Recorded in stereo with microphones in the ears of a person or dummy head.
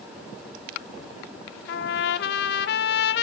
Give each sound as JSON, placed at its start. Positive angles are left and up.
{"t": 1.7, "sound": "a trumpet", "side_deg": 60, "distance_m": 0.9}